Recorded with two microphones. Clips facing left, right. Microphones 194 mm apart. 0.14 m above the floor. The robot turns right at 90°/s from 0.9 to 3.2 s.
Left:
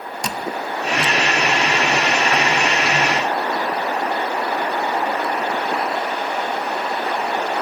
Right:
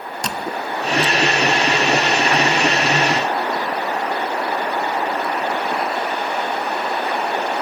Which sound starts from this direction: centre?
A squeak, at 0.2 s.